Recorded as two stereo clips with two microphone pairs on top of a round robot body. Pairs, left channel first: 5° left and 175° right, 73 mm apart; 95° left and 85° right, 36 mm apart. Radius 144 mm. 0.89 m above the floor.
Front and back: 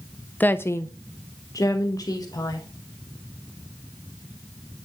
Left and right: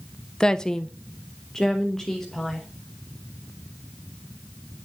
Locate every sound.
0.4 s a woman speaking: 30° left, 0.5 m; by 2.7 s 15° left, 1.5 m